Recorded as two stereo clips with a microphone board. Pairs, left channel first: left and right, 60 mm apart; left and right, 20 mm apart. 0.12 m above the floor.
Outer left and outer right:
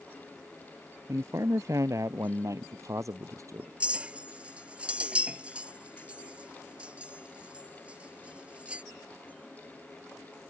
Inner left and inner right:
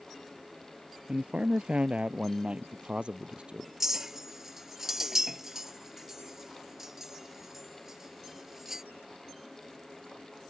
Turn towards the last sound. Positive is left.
turn(degrees=-20)  # may be behind; listen again after turning